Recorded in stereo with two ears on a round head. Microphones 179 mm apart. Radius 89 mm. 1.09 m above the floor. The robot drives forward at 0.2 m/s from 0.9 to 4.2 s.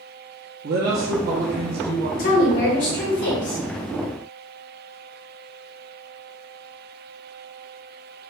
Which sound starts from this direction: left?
A woman speaking, at 2.2 s.